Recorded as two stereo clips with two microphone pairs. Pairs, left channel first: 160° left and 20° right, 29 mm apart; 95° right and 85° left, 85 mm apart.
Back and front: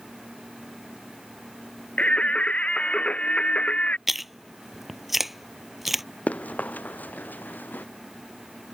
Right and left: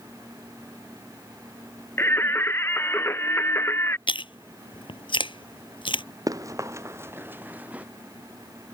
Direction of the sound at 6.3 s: 130° left.